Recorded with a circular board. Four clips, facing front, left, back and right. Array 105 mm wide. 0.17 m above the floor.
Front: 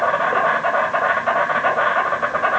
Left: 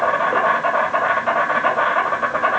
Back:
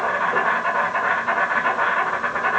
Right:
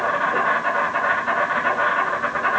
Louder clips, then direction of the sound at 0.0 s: Left 3 dB, front 3 dB; 50° left.